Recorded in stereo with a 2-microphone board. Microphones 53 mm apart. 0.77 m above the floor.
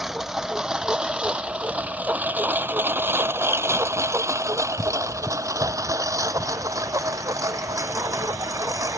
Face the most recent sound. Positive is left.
turn(degrees=-75)  # may be behind; listen again after turning